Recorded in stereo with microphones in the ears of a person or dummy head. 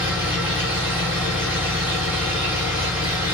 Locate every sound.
0.0 s an engine running: 10° right (ahead or behind), 0.9 m